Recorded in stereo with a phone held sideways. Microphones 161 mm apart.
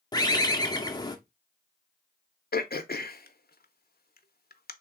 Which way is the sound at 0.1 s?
25° left (ahead or behind).